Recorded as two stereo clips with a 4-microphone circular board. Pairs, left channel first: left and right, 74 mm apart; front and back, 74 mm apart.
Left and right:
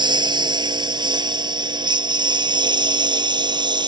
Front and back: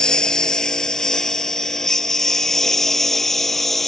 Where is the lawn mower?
80° right; by 3.9 s 85° right.